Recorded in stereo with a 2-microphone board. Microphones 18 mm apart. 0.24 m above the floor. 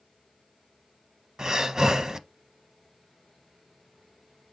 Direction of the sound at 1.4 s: 40° right (ahead or behind).